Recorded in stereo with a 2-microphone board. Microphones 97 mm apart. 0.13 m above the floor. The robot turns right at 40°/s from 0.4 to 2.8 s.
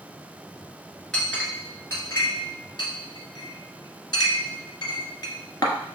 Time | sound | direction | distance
1.1 | a clink | 5° left (ahead or behind) | 1.1 m